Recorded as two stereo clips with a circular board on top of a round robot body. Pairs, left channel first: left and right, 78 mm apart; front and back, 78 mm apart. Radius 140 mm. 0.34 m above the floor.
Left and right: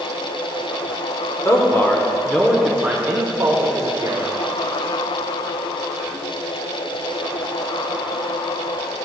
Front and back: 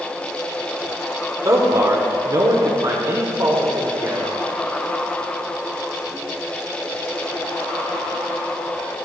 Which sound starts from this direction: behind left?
A man speaking, at 1.4 s.